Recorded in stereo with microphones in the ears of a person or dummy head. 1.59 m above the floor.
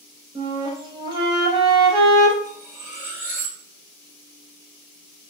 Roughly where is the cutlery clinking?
Right.